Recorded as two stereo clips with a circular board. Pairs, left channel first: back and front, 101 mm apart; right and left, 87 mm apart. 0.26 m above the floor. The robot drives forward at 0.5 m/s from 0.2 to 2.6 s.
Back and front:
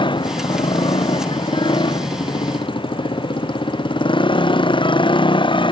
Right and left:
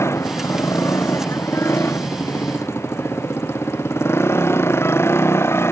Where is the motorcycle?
150° right.